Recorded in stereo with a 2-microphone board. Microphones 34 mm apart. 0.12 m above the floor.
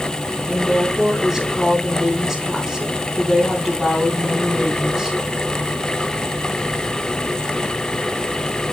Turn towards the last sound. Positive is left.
turn(degrees=-5)  # may be behind; listen again after turning